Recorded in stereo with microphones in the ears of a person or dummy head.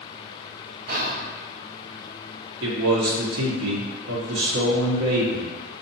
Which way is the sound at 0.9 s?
50° right (ahead or behind).